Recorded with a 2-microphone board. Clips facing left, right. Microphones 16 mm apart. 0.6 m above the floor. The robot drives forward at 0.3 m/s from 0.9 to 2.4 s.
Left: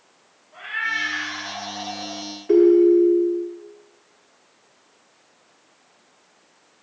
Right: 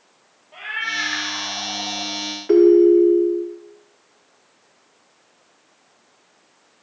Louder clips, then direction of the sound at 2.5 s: Right 2 dB; 35° right (ahead or behind).